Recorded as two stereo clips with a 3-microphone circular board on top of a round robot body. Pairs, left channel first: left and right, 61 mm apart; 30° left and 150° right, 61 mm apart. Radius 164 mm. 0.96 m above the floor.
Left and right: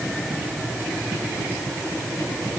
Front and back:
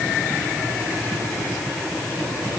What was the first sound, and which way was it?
Only background noise.